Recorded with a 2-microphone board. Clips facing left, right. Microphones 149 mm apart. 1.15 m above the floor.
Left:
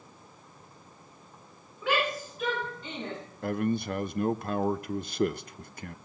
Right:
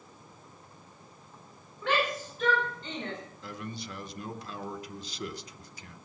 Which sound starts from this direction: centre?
A shout, at 1.8 s.